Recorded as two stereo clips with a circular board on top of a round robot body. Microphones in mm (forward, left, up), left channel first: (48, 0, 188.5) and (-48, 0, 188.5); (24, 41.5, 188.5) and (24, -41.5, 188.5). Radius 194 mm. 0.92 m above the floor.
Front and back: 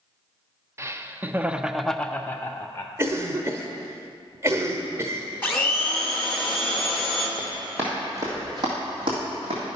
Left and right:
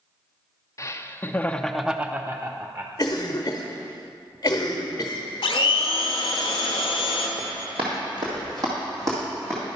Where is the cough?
130° left, 0.9 m.